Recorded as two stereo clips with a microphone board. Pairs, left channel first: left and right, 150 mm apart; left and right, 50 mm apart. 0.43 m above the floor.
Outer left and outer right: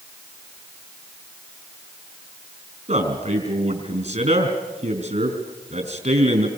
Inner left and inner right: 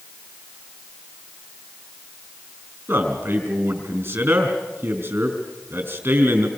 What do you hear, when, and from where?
2.9 s a man speaking: 45° right (ahead or behind), 4.5 m